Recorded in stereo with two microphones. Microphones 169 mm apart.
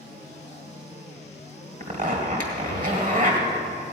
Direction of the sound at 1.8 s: 55° right (ahead or behind).